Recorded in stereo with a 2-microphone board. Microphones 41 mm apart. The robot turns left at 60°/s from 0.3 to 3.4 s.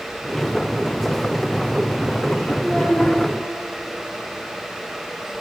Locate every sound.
2.6 s a child speaking: 170° right, 3.5 m; by 3.2 s 155° left, 3.5 m